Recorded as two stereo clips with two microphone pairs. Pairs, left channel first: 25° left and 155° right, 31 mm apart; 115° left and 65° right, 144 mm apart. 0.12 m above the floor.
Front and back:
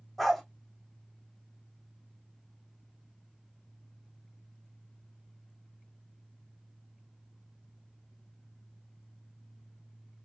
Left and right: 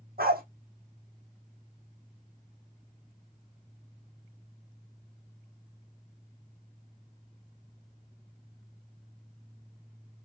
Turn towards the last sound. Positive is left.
turn(degrees=-60)